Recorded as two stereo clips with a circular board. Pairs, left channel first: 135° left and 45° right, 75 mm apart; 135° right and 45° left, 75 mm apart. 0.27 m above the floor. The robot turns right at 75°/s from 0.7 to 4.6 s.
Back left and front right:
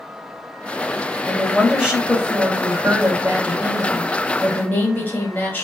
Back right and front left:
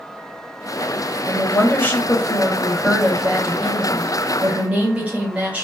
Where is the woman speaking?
150° right, 1.1 m; by 5.7 s 100° left, 1.1 m.